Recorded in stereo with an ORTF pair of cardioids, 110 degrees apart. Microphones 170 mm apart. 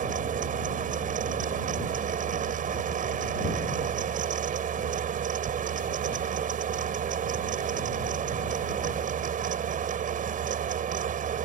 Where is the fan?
50° right.